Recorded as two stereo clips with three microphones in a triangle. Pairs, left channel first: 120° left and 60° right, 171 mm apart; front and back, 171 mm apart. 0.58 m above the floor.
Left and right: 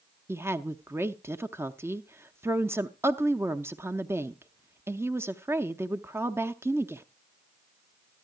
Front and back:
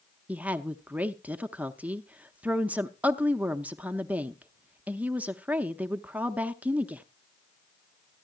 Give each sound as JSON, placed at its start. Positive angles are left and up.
{"t": 0.3, "sound": "a woman speaking", "azimuth_deg": -115, "distance_m": 0.6}